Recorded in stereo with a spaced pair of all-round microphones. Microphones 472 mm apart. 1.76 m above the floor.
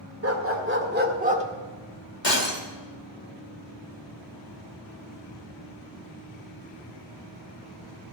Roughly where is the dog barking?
Right.